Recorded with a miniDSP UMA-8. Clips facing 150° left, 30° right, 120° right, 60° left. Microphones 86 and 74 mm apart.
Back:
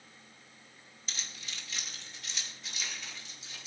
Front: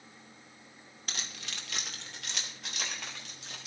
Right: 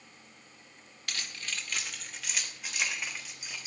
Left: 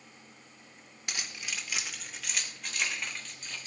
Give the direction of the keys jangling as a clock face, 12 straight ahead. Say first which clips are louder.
Front 3 dB, even; 12 o'clock.